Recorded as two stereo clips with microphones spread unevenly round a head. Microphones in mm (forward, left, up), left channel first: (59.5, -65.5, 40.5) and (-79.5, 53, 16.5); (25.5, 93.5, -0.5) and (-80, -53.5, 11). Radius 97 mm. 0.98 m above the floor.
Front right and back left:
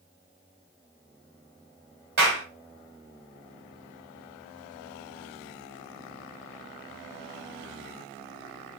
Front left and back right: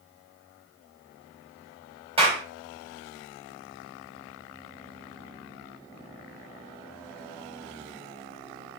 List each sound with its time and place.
2.2 s a clap: 175° left, 4.5 m